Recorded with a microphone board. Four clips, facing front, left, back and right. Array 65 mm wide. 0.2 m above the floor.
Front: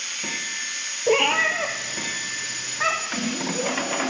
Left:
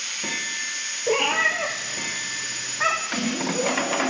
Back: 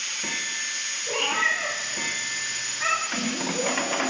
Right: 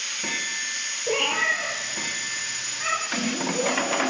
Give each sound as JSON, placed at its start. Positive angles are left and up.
{"t": 1.1, "sound": "a cat meowing", "azimuth_deg": 15, "distance_m": 2.0}